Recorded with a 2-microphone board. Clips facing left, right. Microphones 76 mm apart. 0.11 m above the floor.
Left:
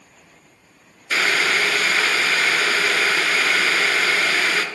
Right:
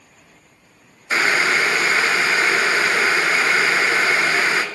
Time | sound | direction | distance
1.1 | boiling | 25° right (ahead or behind) | 1.2 m